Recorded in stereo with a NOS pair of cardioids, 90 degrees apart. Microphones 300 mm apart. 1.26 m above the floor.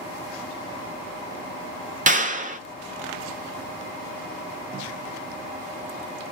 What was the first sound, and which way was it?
A clap, 25° right.